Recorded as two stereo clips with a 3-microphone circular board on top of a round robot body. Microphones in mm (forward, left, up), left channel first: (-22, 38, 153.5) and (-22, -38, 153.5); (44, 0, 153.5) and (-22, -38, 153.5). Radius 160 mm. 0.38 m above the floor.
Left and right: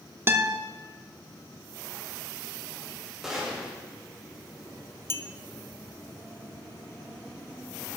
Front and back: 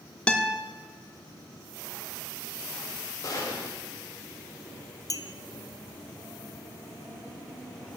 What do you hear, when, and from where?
0.3 s a guitar: 45° right, 0.9 m
3.2 s a gunshot: 5° right, 2.5 m
5.1 s a clink: 45° left, 0.7 m